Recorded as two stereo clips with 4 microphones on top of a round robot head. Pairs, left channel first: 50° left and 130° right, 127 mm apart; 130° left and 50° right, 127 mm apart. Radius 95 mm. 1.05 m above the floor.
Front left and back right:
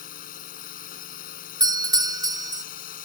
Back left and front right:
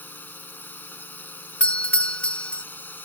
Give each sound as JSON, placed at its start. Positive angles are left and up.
{"t": 0.0, "sound": "a drone", "azimuth_deg": 55}
{"t": 1.6, "sound": "a doorbell", "azimuth_deg": -155}